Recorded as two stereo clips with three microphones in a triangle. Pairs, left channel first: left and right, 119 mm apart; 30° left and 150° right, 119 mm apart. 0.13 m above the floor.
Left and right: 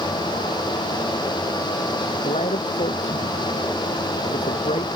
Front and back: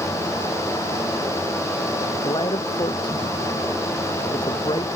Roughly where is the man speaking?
Left.